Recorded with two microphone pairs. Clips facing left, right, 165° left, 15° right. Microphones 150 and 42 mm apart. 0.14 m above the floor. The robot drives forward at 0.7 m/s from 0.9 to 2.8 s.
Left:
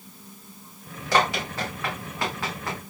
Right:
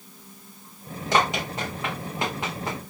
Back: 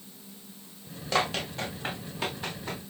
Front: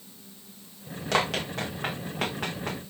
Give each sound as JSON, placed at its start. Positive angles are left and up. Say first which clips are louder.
{"t": 1.1, "sound": "running footsteps", "louder": "even, front 2 dB", "azimuth_deg": -20, "distance_m": 6.0}